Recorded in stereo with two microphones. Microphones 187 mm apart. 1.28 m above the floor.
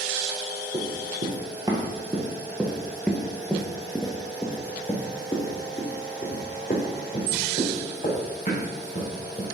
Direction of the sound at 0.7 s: 30° right (ahead or behind).